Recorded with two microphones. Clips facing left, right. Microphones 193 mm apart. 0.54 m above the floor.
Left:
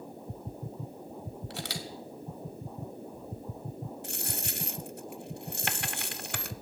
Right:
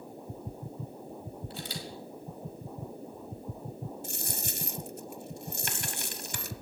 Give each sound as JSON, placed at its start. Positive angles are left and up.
{"t": 1.5, "sound": "a camera shutter", "side_deg": 75, "distance_m": 1.8}
{"t": 4.0, "sound": "a dropped coin", "side_deg": 65, "distance_m": 0.8}